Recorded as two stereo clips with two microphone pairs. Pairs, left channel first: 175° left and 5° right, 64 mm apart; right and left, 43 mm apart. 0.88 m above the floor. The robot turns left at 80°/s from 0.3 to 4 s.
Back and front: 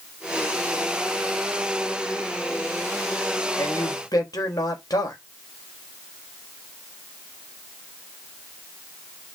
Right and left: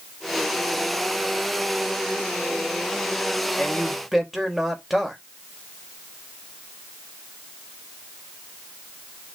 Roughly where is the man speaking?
Behind right.